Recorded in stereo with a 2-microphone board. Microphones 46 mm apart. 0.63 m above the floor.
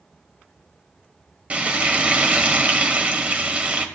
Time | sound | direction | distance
1.5 | frying | 30° right (ahead or behind) | 1.5 m